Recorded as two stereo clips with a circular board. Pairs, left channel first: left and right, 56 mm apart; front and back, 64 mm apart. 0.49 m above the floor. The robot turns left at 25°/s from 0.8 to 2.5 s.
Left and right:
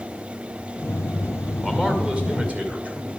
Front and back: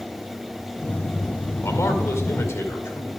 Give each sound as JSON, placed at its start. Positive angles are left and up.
{"t": 1.6, "sound": "a man speaking", "azimuth_deg": -15, "distance_m": 2.0}